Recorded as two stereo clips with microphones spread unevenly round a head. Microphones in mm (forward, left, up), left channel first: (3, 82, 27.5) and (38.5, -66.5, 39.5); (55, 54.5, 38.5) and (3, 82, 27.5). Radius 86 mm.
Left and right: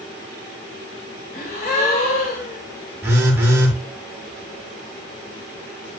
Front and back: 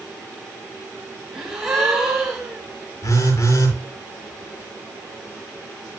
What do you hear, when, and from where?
1.3 s a gasp: 70° left, 6 m
3.0 s a phone buzzing: straight ahead, 6 m